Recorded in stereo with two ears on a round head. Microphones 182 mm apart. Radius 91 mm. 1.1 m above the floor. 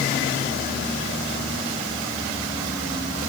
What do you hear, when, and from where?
Only background noise.